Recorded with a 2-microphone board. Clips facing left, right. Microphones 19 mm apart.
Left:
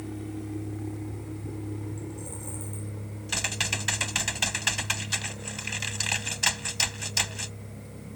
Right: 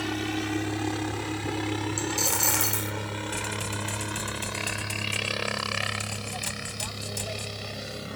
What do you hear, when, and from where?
0.0 s a helicopter: 65° right (ahead or behind); by 8.2 s 75° right (ahead or behind)
2.0 s a dropped coin: 75° right (ahead or behind)
3.3 s typing on a keyboard: 50° left (ahead or behind)